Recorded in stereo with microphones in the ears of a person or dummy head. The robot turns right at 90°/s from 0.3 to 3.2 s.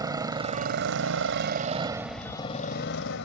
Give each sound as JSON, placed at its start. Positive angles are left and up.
{"t": 0.0, "sound": "a motorcycle", "azimuth_deg": -165}